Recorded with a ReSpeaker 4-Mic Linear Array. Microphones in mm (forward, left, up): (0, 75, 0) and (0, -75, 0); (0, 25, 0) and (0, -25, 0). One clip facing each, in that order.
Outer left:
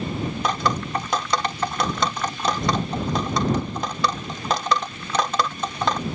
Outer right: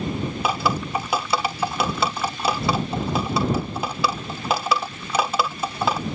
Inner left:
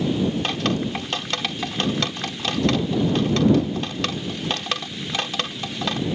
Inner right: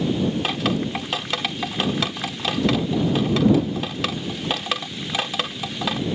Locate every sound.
0.4 s dripping: 10° right (ahead or behind)